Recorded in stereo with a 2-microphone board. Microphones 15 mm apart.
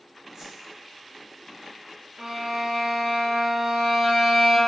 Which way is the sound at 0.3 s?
45° right (ahead or behind).